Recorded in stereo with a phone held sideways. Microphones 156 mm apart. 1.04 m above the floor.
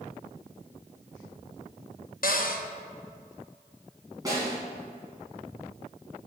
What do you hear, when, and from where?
2.2 s a cupboard door: 65° left (ahead or behind), 0.7 m
4.2 s a snare drum: 25° right (ahead or behind), 2.5 m